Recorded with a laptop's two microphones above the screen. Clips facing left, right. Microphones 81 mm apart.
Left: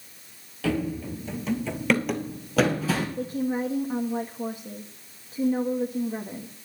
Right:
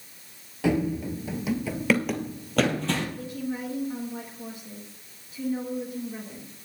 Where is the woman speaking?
45° left (ahead or behind), 1.3 m.